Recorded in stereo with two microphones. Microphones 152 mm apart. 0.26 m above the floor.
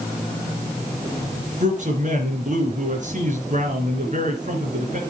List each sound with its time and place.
1.6 s a man speaking: 55° right (ahead or behind), 4 m